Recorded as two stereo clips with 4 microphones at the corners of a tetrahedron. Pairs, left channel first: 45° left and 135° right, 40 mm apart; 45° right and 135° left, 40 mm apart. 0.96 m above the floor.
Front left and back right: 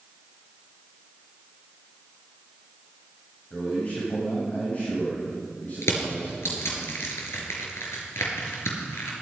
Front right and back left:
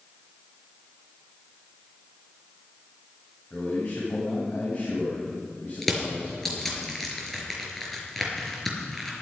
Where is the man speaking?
5° right, 6.5 m.